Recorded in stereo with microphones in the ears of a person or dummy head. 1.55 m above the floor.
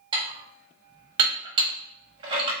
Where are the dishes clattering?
30° right (ahead or behind), 1.0 m.